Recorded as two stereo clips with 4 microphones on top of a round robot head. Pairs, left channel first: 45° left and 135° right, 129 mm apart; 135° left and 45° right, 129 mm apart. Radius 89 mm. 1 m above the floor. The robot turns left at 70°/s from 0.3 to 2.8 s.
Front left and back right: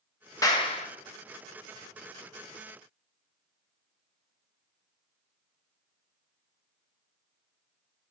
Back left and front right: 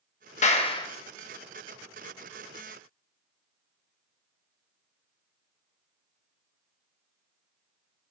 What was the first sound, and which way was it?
A clap, 110° left.